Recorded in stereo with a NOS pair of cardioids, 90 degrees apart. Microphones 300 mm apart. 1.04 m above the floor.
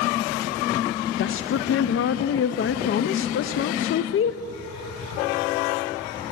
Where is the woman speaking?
45° left, 0.8 m.